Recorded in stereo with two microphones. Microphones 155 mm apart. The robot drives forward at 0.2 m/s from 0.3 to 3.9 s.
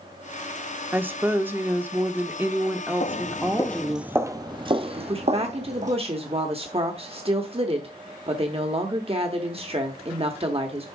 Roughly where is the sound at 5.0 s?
Right.